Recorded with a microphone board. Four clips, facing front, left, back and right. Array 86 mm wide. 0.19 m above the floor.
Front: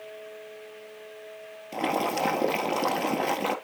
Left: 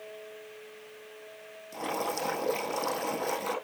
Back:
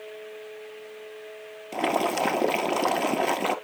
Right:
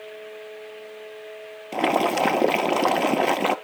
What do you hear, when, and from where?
1.7 s boiling: 100° right, 1.1 m